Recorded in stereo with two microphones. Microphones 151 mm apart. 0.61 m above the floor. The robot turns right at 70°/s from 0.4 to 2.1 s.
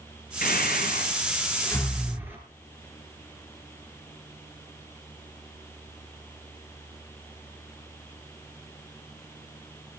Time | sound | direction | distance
0.4 | breathing | 75° left (ahead or behind) | 5 m